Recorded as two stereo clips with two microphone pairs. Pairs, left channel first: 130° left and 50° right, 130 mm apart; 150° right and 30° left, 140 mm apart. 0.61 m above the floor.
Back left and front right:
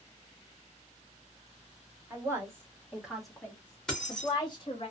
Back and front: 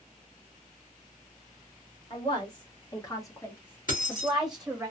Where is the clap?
I don't hear a clap.